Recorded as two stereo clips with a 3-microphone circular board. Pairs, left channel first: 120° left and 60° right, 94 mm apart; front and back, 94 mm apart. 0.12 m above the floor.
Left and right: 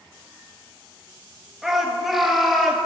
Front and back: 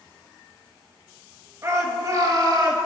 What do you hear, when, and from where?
1.6 s a shout: 145° right, 2.0 m; by 2.8 s 150° right, 2.5 m